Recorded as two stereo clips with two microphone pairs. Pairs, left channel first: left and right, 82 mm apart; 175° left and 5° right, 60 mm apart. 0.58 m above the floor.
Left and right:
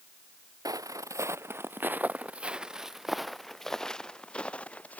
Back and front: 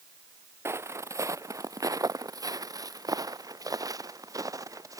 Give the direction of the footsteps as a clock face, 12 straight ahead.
2 o'clock.